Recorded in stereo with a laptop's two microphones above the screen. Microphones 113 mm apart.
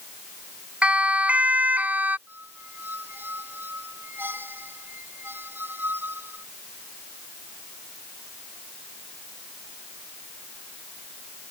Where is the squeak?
20° right (ahead or behind).